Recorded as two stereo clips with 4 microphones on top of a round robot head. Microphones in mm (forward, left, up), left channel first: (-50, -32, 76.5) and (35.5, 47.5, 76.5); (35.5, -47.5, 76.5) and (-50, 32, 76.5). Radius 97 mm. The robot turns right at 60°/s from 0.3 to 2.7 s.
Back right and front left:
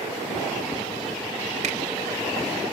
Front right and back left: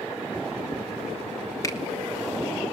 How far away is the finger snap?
About 2.5 m.